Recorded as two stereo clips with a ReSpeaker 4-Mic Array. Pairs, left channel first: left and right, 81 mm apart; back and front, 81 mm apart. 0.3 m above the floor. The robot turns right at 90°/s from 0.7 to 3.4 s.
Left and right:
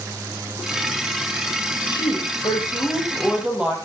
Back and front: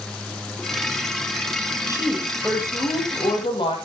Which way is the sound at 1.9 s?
55° left.